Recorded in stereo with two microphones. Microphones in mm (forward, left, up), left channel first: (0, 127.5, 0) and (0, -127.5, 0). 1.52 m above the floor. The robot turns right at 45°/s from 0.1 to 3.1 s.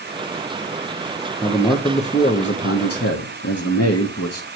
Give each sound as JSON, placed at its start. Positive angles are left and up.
{"t": 1.4, "sound": "a man speaking", "azimuth_deg": 0, "distance_m": 0.9}